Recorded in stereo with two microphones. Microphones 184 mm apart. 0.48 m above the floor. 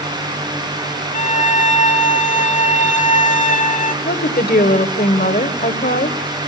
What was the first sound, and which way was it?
A violin, 45° left (ahead or behind).